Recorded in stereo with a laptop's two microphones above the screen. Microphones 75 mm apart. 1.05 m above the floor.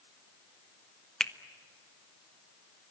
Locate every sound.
1.2 s a finger snap: 10° left (ahead or behind), 1.3 m